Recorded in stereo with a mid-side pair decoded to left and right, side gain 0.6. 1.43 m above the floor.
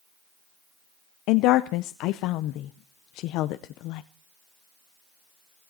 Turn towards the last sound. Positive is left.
turn(degrees=70)